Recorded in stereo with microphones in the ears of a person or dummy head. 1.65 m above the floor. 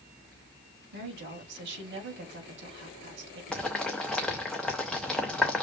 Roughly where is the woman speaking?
Right.